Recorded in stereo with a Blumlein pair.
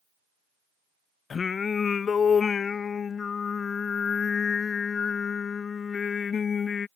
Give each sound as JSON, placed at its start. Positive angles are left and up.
{"t": 1.3, "sound": "singing", "azimuth_deg": 20}